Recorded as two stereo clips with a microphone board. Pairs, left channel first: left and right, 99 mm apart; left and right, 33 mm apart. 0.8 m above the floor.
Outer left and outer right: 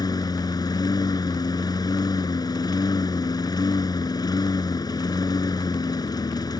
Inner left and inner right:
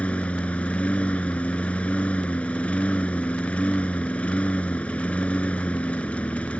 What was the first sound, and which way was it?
A lawn mower, 40° left (ahead or behind).